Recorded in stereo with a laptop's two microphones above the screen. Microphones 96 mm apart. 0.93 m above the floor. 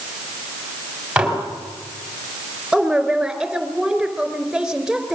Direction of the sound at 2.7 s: 5° right (ahead or behind).